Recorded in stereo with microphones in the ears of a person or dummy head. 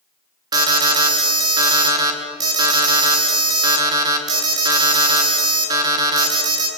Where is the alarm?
25° right (ahead or behind), 3 m.